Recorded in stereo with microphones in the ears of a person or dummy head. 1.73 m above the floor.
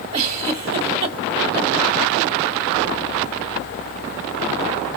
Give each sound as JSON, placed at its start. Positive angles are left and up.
{"t": 0.1, "sound": "a giggle", "side_deg": -30, "distance_m": 0.9}